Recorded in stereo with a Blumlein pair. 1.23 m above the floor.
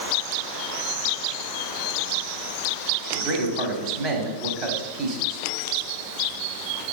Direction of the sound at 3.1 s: 30° right.